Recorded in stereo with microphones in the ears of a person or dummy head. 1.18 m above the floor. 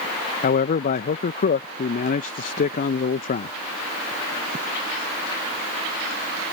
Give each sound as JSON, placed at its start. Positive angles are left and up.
{"t": 0.4, "sound": "a man speaking", "side_deg": 45}